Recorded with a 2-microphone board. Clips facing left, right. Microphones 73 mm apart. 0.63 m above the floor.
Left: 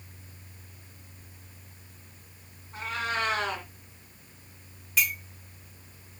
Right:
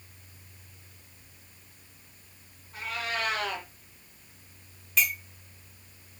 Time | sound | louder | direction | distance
2.7 | a cat meowing | left 2 dB | 30° left (ahead or behind) | 2.5 m
5.0 | a clink | even | 5° left (ahead or behind) | 3 m